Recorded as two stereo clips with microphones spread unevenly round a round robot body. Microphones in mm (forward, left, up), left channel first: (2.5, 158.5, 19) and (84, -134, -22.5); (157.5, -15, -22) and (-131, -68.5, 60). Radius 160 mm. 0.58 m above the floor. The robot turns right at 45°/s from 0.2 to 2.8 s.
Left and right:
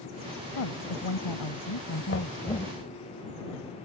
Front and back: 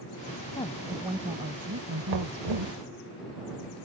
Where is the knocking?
165° left; by 2.8 s 165° right.